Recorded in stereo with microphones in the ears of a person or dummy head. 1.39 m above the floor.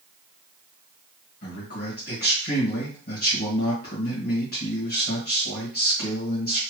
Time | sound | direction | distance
1.4 | a man speaking | 45° left (ahead or behind) | 1.9 m